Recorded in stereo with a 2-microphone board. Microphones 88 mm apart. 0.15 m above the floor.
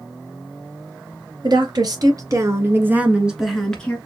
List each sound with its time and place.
1.4 s a woman speaking: 55° right (ahead or behind), 2.5 m; by 4.0 s 15° left (ahead or behind), 1.8 m